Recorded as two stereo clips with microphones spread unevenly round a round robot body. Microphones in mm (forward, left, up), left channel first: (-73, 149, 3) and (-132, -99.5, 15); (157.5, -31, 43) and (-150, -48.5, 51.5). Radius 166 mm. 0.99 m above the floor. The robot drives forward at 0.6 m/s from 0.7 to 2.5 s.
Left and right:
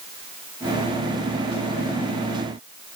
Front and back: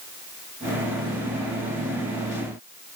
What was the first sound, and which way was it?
Only background noise.